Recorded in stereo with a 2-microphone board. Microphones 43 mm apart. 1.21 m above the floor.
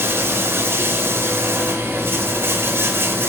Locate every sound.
0.0 s running water: 70° right (ahead or behind), 4 m